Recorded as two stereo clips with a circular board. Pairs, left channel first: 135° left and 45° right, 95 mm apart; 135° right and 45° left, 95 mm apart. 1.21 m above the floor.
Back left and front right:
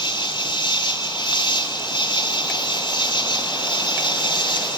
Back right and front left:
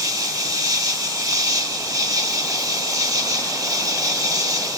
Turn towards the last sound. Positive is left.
turn(degrees=95)